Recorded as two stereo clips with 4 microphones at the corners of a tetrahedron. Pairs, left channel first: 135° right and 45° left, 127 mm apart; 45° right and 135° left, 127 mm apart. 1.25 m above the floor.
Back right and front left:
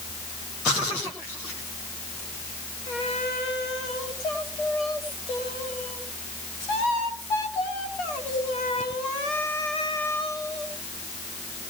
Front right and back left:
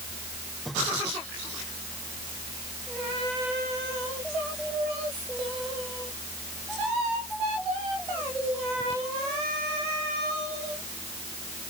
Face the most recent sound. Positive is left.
No sound to turn to.